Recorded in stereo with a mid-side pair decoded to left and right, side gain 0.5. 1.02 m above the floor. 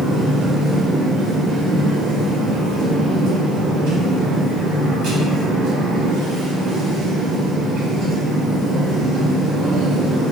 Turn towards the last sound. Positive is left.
turn(degrees=-70)